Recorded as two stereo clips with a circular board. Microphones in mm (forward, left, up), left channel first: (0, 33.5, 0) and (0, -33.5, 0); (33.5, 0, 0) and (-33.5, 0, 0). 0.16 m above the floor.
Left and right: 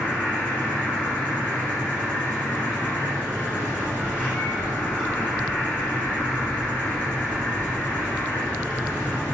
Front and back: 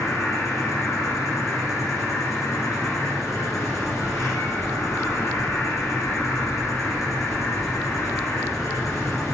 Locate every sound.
0.0 s an insect: 30° left, 3 m